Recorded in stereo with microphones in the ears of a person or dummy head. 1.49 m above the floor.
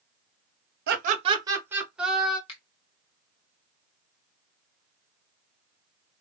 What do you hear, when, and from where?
0.9 s laughter: 60° right (ahead or behind), 0.6 m; by 2.4 s 5° left (ahead or behind), 1.6 m
2.5 s a finger snap: 35° left (ahead or behind), 1.1 m